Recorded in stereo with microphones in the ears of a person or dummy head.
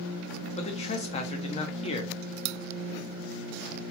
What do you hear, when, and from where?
0.6 s a man speaking: 40° left (ahead or behind), 0.6 m